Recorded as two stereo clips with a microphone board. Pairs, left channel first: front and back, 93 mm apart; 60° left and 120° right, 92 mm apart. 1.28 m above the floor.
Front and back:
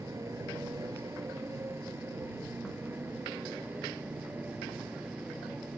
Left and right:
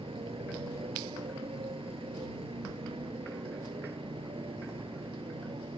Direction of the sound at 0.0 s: 125° right.